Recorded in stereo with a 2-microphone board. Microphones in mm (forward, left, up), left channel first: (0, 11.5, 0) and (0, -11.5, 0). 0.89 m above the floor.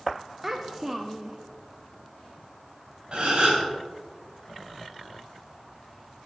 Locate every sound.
0.4 s a child speaking: 10° right (ahead or behind), 0.6 m
3.1 s a gasp: 60° right (ahead or behind), 3 m